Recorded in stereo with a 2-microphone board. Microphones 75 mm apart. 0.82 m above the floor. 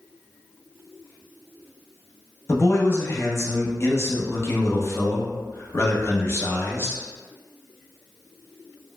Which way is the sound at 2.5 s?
35° left (ahead or behind).